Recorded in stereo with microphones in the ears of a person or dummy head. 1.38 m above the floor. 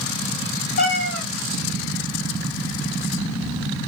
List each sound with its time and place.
0.8 s a cat meowing: 60° left (ahead or behind), 1.7 m